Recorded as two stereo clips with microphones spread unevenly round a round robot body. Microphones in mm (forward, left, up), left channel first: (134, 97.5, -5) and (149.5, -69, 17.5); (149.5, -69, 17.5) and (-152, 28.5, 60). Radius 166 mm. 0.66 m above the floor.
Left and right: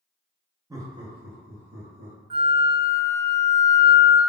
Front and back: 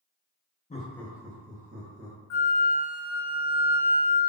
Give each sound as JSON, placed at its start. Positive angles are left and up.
{"t": 0.7, "sound": "laughter", "azimuth_deg": -20, "distance_m": 0.7}
{"t": 2.3, "sound": "a flute", "azimuth_deg": -20, "distance_m": 0.8}